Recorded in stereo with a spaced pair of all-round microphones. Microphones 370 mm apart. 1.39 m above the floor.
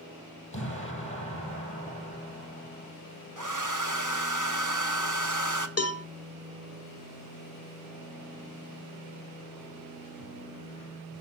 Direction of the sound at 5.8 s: 40° left (ahead or behind).